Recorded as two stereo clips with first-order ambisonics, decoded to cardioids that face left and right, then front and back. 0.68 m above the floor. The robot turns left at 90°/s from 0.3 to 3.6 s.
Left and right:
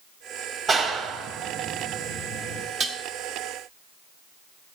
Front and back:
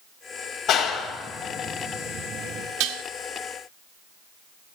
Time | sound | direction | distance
0.7 | a clap | 25° right | 1.0 m
2.8 | dishes clattering | 150° right | 0.8 m